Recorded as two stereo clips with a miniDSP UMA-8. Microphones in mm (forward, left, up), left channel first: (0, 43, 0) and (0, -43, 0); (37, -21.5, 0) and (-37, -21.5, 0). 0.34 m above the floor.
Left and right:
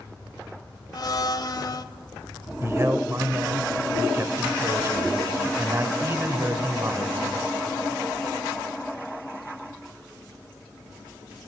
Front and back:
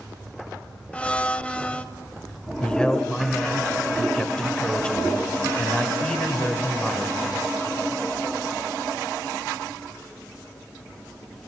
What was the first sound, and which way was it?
A blender, 70° left.